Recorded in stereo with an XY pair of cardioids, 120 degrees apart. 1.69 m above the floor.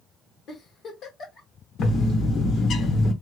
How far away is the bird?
About 1.6 m.